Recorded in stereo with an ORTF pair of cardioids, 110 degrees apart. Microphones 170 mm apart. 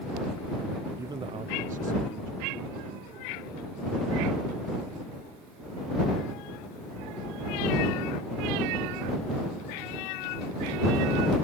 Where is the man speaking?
15° right; by 4.0 s 65° right.